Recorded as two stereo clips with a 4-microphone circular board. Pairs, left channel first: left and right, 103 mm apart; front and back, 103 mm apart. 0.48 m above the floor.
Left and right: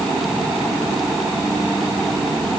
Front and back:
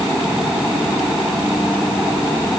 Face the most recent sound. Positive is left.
No sound to turn to.